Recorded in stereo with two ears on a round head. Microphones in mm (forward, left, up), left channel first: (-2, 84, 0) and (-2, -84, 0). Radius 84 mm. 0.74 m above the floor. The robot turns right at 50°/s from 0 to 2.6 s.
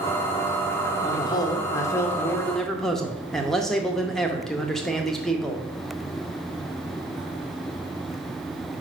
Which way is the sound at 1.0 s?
25° left (ahead or behind).